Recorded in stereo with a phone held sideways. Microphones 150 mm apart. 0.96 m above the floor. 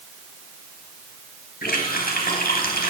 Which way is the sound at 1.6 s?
90° left.